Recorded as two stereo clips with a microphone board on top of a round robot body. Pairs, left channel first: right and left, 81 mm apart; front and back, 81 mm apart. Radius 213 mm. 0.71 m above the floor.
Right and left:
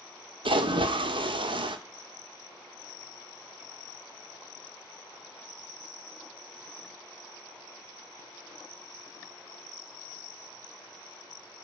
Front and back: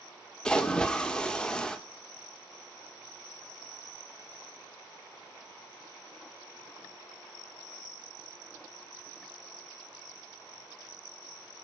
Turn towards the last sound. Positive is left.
turn(degrees=80)